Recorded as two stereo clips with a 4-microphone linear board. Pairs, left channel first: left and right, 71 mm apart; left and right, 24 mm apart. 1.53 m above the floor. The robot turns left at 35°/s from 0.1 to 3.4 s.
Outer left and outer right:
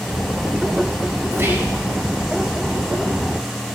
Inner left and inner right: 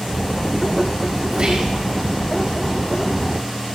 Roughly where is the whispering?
Right.